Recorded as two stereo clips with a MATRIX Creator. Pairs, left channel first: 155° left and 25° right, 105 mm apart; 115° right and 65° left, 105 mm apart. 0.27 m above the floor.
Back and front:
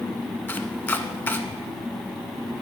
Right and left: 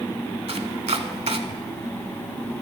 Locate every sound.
0.5 s chopping: 85° left, 0.7 m